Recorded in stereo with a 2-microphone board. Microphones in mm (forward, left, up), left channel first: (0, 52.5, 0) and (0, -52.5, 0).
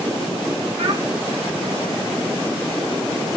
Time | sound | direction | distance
0.8 | a child speaking | 70° right (ahead or behind) | 7 m